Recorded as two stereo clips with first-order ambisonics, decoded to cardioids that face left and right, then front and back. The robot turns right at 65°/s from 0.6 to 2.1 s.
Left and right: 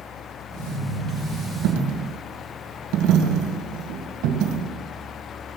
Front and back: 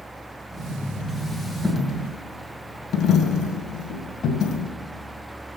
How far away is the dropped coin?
About 1.8 m.